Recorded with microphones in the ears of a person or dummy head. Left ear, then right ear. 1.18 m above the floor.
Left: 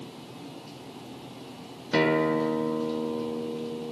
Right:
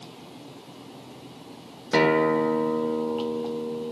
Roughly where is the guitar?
Right.